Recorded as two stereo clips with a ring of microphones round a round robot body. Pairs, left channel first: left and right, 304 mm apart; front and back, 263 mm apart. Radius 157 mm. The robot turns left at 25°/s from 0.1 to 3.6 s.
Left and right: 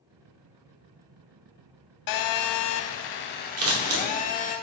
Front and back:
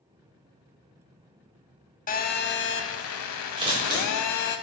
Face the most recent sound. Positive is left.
turn(degrees=-110)